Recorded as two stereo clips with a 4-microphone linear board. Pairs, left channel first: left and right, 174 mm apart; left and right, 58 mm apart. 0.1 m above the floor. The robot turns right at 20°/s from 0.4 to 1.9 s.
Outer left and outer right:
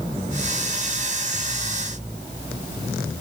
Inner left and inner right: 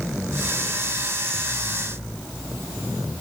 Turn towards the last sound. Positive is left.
No sound to turn to.